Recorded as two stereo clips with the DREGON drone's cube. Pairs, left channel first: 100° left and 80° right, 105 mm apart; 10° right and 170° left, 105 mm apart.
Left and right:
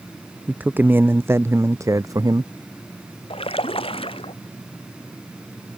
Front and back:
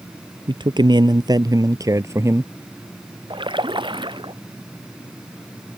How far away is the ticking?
I don't hear ticking.